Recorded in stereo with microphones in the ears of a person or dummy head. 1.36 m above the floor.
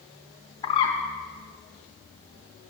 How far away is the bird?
About 0.7 m.